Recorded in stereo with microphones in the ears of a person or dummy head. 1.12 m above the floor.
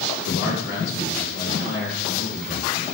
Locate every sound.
0.3 s a man speaking: 65° left (ahead or behind), 0.8 m; by 2.7 s 70° left (ahead or behind), 2.5 m